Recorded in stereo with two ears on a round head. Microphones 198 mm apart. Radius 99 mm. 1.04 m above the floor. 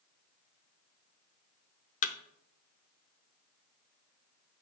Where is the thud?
35° left (ahead or behind), 0.7 m.